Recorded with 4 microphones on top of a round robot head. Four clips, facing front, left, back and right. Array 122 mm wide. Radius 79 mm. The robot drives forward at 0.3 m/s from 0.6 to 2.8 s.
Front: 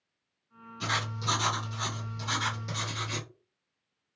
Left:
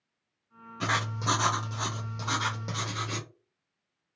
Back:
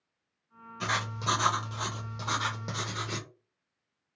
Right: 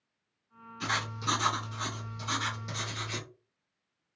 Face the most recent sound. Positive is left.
turn(degrees=140)